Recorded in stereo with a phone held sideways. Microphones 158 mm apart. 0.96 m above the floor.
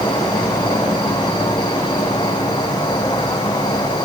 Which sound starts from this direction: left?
An insect, at 0.0 s.